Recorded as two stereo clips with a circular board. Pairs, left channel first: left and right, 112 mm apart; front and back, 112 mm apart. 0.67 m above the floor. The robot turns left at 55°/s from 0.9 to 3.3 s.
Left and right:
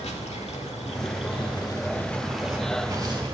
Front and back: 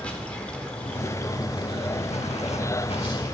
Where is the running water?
80° left, 1.1 m; by 3.3 s 55° right, 1.1 m.